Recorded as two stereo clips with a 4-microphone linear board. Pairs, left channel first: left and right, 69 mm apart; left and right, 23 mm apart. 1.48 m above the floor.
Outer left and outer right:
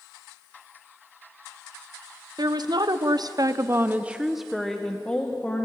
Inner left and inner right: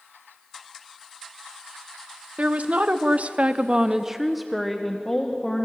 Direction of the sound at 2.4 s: 75° right (ahead or behind).